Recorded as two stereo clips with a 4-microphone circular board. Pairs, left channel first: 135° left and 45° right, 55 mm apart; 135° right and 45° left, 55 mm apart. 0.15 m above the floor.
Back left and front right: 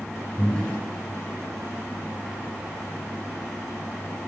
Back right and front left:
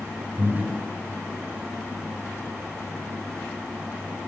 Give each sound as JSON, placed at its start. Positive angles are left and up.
{"t": 0.4, "sound": "breathing", "azimuth_deg": 65, "distance_m": 1.7}